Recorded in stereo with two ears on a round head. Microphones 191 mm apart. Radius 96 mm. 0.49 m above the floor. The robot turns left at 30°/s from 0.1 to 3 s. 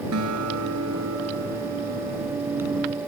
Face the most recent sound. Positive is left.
turn(degrees=-165)